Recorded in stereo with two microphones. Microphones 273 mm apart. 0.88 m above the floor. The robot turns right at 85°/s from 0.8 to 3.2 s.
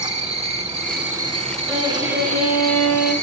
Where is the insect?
155° right, 1.8 m; by 3.2 s 45° left, 1.8 m.